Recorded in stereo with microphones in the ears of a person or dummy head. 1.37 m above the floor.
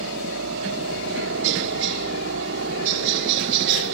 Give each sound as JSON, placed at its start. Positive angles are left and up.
{"t": 0.0, "sound": "a helicopter", "side_deg": -70}